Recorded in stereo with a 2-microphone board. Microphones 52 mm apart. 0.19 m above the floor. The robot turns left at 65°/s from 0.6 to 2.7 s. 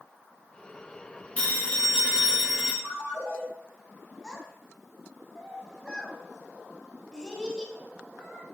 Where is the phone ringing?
30° left (ahead or behind), 1.1 m; by 2.7 s 5° right (ahead or behind), 1.1 m.